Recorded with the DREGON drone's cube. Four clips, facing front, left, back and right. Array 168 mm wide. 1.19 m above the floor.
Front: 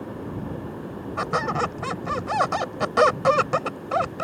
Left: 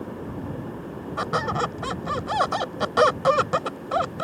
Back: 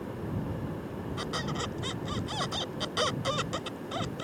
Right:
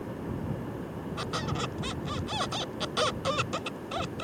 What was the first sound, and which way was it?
A squeak, 40° left.